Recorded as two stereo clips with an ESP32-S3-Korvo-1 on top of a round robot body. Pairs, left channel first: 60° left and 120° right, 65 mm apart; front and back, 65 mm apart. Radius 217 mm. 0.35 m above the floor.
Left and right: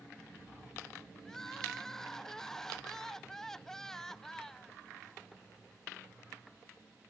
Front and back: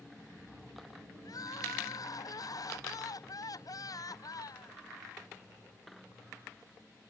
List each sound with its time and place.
1.2 s crying: 25° right